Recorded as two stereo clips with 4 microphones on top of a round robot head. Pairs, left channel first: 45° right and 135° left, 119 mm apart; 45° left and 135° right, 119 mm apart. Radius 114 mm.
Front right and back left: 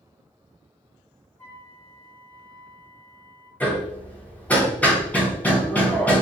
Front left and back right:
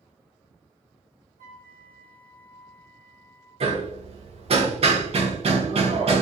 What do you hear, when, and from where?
1.4 s a flute: 120° right, 0.7 m
3.6 s hammering: 120° right, 0.9 m